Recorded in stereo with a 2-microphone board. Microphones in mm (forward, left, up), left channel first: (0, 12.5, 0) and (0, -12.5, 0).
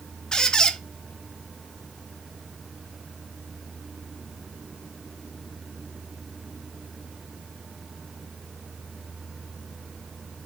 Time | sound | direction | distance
0.3 | a squeak | 35° left (ahead or behind) | 0.6 m